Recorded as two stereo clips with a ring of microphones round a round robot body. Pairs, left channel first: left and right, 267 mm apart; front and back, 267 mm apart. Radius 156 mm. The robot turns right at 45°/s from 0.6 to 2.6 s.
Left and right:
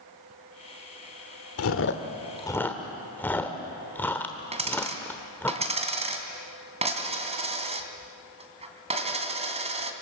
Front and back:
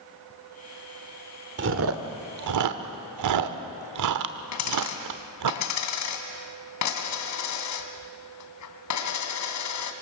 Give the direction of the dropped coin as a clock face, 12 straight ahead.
1 o'clock.